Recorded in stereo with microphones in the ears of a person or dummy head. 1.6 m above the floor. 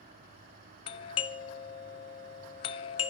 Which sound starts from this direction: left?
A doorbell, at 0.9 s.